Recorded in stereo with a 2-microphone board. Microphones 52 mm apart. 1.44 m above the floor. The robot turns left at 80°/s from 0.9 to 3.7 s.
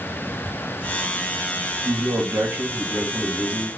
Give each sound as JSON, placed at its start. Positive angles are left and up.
{"t": 1.9, "sound": "a man speaking", "azimuth_deg": -90, "distance_m": 0.9}